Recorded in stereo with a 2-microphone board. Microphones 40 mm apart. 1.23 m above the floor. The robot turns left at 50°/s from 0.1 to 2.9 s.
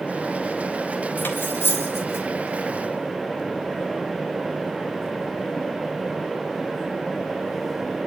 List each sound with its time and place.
1.2 s cutlery clinking: 60° left (ahead or behind), 3.5 m; by 2.3 s 65° left (ahead or behind), 3.5 m